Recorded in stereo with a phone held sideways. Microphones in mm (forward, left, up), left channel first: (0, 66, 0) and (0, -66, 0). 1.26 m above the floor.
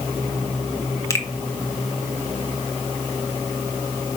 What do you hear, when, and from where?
1.1 s a finger snap: 25° left (ahead or behind), 1.2 m